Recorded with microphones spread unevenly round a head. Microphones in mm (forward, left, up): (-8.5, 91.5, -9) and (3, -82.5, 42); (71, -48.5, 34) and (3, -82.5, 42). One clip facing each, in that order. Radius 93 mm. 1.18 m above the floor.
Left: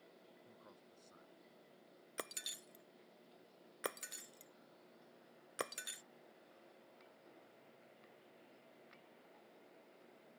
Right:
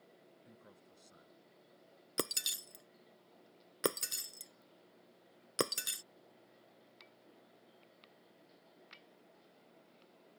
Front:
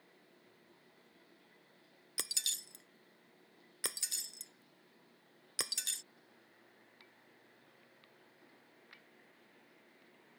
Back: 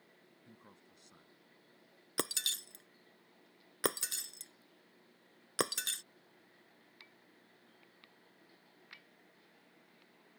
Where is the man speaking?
150° right.